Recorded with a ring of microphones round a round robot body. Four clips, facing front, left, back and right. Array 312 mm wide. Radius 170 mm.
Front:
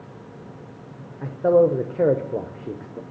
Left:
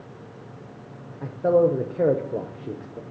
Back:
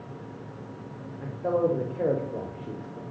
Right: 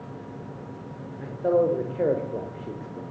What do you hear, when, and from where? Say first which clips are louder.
1.2 s a man speaking: left 3 dB, front 9 dB; 20° left, 1.0 m